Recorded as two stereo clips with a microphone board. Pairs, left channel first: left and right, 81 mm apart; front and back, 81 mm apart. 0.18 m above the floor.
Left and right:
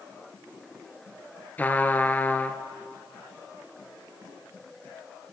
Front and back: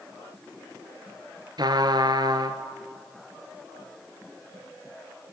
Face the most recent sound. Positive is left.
turn(degrees=155)